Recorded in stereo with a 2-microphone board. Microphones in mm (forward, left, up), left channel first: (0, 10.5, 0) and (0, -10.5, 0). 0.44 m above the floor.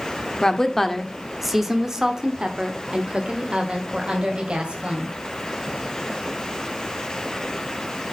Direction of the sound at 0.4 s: 20° left (ahead or behind).